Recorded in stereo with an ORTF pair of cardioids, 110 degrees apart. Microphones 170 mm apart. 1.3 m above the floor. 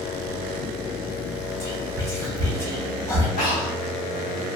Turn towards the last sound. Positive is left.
turn(degrees=55)